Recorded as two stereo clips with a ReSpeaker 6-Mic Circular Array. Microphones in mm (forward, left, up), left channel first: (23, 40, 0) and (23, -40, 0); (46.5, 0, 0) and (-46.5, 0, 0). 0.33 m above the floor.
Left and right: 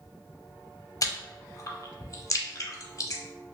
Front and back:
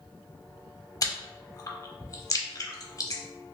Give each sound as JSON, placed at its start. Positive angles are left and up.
{"t": 1.0, "sound": "chewing", "azimuth_deg": 50, "distance_m": 0.5}